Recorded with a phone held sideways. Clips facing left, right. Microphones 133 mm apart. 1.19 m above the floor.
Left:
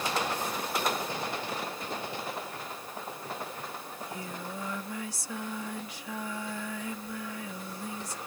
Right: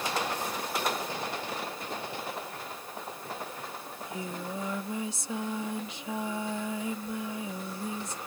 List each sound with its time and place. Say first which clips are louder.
3.9 s singing: right 2 dB; 20° right (ahead or behind)